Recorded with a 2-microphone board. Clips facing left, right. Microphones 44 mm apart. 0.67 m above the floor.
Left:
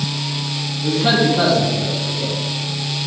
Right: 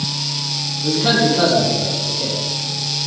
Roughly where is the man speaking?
Centre.